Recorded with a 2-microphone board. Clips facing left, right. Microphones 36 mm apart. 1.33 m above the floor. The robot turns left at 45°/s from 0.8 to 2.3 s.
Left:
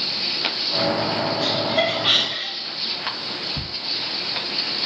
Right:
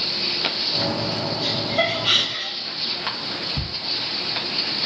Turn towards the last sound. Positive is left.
turn(degrees=45)  # may be behind; listen again after turning